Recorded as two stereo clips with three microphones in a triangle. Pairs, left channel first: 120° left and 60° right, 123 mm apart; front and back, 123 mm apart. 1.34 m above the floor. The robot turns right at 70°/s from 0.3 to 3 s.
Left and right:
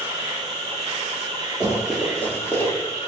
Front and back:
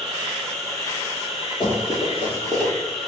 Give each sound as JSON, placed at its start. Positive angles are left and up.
{"t": 0.0, "sound": "an insect", "azimuth_deg": -95, "distance_m": 1.2}
{"t": 1.6, "sound": "running footsteps", "azimuth_deg": 20, "distance_m": 1.8}